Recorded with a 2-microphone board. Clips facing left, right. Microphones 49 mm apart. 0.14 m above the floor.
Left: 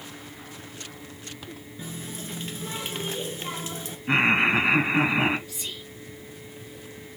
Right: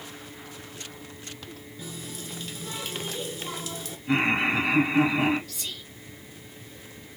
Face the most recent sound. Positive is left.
turn(degrees=20)  # may be behind; listen again after turning